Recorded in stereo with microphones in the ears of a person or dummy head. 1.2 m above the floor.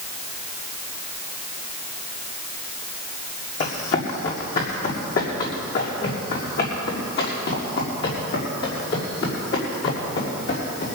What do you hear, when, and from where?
3.6 s running footsteps: 45° left (ahead or behind), 3 m; by 10.9 s 60° left (ahead or behind), 9.5 m